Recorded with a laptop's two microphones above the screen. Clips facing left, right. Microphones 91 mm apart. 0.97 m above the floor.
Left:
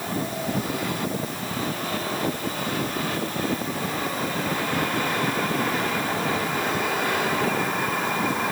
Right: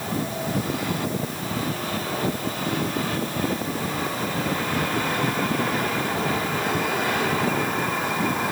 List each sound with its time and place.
Only background noise.